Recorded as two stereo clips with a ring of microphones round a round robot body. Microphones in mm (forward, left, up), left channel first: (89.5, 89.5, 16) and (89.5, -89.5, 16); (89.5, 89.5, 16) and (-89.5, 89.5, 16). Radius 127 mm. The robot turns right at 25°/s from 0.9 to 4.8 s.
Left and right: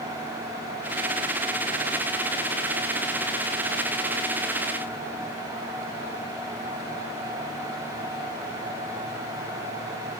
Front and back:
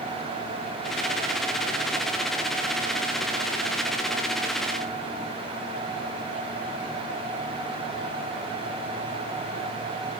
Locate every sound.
Only background noise.